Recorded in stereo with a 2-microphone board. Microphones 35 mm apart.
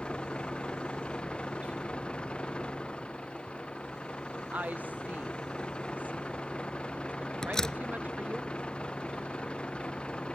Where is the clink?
No clink in this recording.